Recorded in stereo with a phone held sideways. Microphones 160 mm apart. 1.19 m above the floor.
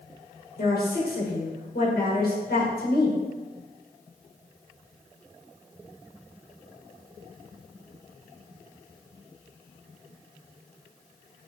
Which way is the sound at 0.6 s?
70° left (ahead or behind).